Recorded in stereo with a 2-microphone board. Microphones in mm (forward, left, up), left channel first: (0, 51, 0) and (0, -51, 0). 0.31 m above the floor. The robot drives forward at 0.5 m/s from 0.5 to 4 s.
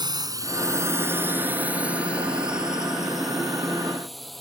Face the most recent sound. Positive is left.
turn(degrees=0)  # may be behind; listen again after turning